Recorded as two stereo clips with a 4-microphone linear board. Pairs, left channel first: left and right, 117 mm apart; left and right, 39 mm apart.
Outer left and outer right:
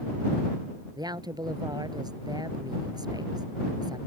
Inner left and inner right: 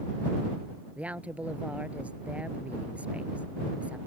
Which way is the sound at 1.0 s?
35° right (ahead or behind).